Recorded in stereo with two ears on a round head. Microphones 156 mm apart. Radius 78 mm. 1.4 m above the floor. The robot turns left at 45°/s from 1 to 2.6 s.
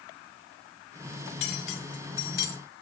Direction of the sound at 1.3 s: 65° left (ahead or behind).